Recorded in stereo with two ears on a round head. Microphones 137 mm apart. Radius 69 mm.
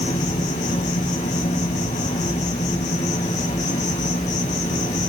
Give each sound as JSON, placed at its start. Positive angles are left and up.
{"t": 0.0, "sound": "an insect", "side_deg": 50, "distance_m": 1.9}